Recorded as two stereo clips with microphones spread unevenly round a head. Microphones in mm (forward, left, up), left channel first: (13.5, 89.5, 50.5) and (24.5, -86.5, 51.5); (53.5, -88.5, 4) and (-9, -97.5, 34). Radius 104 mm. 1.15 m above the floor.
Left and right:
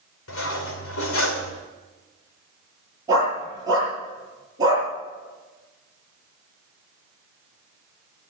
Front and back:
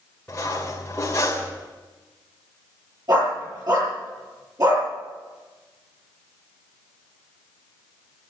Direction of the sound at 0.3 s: 95° left.